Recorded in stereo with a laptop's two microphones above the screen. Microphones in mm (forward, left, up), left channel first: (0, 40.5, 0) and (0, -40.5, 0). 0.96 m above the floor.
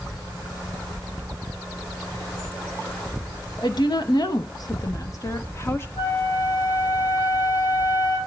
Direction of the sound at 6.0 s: 75° left (ahead or behind).